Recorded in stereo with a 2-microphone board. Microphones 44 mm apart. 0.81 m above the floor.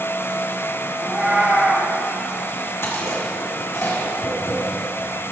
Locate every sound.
1.0 s a cat meowing: 25° right (ahead or behind), 3 m
2.8 s chewing: 65° left (ahead or behind), 1.8 m
4.2 s tapping: 75° left (ahead or behind), 3.5 m